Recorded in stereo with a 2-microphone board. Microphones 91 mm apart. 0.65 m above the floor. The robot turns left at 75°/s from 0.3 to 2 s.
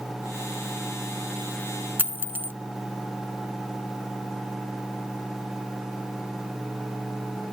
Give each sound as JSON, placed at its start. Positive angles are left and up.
{"t": 2.0, "sound": "a dropped coin", "side_deg": -20}